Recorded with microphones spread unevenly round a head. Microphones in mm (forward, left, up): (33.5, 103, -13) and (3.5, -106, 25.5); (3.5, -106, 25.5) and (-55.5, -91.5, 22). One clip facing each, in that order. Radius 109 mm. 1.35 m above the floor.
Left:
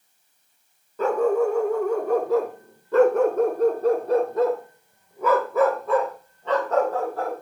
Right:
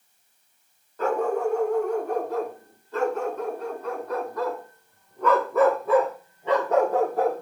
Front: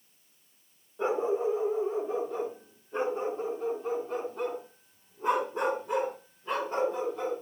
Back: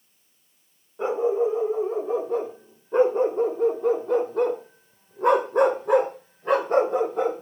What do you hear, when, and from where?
1.0 s a dog barking: 85° left, 1.9 m; by 7.4 s 165° right, 2.5 m